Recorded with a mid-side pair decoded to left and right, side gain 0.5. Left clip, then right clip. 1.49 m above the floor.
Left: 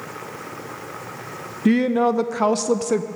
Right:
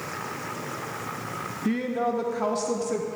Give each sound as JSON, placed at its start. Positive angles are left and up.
{"t": 1.6, "sound": "a woman speaking", "azimuth_deg": 55, "distance_m": 0.6}